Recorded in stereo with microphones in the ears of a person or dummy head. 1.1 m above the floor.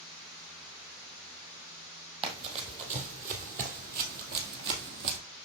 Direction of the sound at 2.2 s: 30° right (ahead or behind).